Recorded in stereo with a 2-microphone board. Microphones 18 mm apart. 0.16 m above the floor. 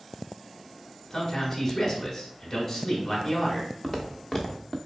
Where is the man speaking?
15° left (ahead or behind), 1.2 m.